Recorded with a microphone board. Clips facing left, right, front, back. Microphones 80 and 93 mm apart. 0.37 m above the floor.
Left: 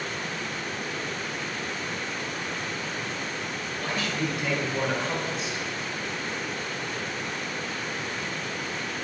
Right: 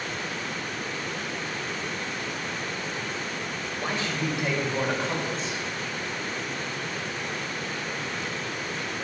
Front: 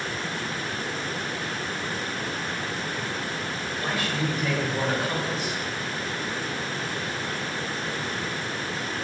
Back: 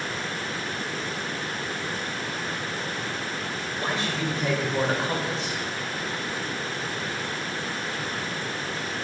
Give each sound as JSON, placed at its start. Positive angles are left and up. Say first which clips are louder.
{"t": 3.8, "sound": "a man speaking", "louder": "even, even", "azimuth_deg": -130, "distance_m": 1.5}